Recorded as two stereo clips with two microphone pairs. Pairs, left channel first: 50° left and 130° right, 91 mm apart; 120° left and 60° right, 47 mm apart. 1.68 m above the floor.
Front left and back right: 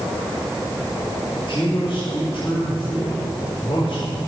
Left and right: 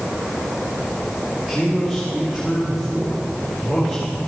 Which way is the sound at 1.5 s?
25° left.